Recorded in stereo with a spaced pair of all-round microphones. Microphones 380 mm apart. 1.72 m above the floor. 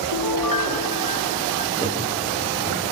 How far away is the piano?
About 1.6 m.